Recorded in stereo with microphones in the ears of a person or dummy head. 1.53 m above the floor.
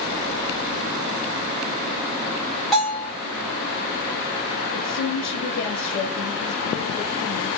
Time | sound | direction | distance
2.7 | a bell | centre (ahead or behind) | 1.4 m
4.7 | a woman speaking | 65° left (ahead or behind) | 0.7 m